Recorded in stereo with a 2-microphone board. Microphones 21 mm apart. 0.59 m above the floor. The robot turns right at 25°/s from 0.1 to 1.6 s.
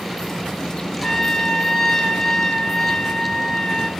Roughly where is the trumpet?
Centre.